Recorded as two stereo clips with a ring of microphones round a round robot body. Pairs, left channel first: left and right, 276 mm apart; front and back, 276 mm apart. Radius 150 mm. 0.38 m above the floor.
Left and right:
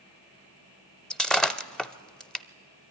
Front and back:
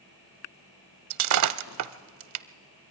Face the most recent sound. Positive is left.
turn(degrees=180)